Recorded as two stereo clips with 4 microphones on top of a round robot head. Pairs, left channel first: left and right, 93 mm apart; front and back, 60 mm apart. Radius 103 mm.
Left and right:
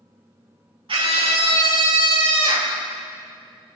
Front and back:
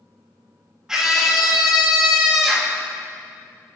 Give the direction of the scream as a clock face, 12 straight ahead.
3 o'clock.